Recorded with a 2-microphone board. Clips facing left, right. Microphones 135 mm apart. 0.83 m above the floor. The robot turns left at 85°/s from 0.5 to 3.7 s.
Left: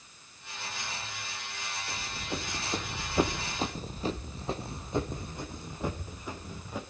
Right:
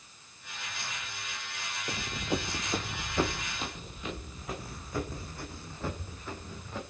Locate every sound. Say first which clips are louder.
1.9 s running footsteps: right 7 dB; 40° right (ahead or behind), 1.4 m; by 6.8 s 10° left (ahead or behind), 3 m